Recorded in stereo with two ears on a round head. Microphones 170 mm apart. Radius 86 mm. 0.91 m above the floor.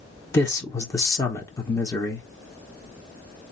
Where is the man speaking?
15° left (ahead or behind), 0.9 m.